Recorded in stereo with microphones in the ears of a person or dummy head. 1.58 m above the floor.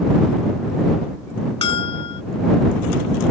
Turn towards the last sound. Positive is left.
turn(degrees=30)  # may be behind; listen again after turning